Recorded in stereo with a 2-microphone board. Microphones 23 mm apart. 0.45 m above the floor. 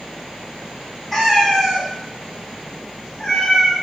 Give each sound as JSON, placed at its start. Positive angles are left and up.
{"t": 1.1, "sound": "a cat meowing", "side_deg": 10, "distance_m": 0.7}